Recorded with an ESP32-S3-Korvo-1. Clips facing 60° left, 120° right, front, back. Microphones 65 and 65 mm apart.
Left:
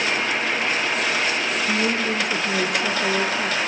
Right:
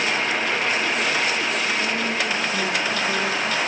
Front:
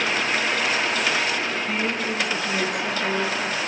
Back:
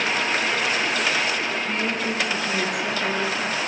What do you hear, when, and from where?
1.7 s a woman speaking: 85° left, 5 m; by 3.6 s 100° left, 5.5 m